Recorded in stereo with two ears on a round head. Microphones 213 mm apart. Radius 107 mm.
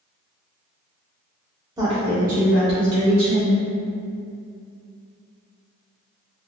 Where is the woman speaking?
15° right (ahead or behind), 0.8 m; by 3.6 s 65° right (ahead or behind), 1.5 m.